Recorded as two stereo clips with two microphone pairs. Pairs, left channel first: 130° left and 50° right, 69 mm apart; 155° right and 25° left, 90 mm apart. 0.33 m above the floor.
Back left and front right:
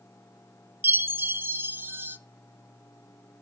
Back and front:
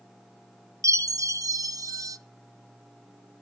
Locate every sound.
0.8 s a chime: 10° right, 0.6 m